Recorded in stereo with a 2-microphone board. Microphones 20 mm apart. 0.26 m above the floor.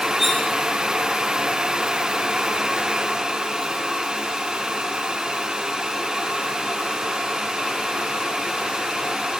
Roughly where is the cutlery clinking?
Centre.